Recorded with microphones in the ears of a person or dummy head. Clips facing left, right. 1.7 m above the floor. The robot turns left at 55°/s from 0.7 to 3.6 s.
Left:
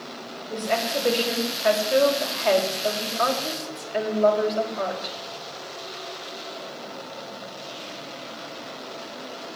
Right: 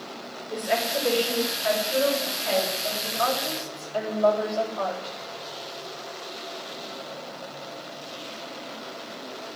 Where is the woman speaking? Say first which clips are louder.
Left 1 dB; 175° right, 4.5 m; by 5.2 s 25° left, 4.5 m.